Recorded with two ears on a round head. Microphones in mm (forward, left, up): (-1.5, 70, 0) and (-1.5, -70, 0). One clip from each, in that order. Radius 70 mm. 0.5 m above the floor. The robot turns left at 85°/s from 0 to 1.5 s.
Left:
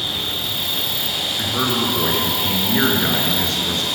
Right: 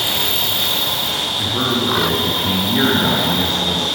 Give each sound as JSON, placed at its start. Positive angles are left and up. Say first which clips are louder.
{"t": 0.0, "sound": "an insect", "louder": "right 4 dB", "azimuth_deg": -120, "distance_m": 4.0}
{"t": 1.4, "sound": "a man speaking", "louder": "right 1 dB", "side_deg": 65, "distance_m": 8.0}